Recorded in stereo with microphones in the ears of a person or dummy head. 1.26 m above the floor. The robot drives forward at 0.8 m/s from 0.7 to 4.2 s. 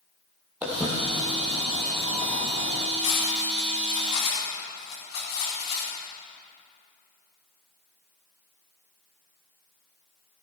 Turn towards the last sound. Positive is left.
turn(degrees=30)  # may be behind; listen again after turning